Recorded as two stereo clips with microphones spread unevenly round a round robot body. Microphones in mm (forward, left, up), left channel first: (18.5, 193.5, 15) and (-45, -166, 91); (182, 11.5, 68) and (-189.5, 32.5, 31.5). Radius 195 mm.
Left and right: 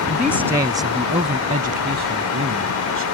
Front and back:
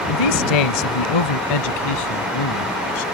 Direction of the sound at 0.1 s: 5° right.